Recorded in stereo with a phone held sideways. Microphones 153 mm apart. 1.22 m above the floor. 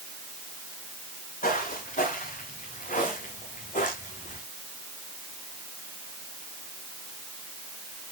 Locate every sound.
1.4 s footsteps: 55° left (ahead or behind), 8 m; by 4.4 s 50° left (ahead or behind), 4 m